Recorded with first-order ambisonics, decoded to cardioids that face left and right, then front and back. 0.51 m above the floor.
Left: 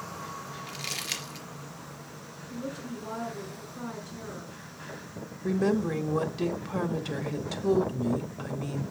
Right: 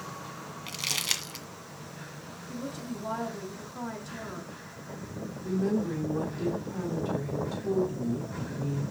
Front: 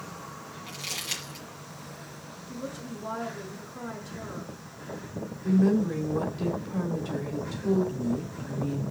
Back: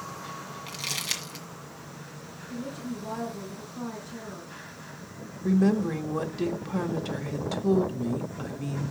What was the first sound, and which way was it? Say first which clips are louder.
Crumpling: right 5 dB, back 2 dB; 110° right.